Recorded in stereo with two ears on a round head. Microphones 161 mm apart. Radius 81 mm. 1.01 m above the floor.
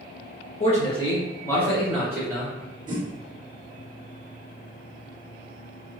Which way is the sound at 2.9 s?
25° right (ahead or behind).